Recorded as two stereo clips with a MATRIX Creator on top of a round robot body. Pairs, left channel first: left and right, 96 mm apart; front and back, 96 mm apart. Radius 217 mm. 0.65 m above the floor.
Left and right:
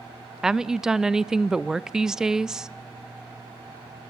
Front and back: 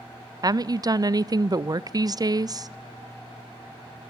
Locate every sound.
0.4 s a woman speaking: 170° right, 0.6 m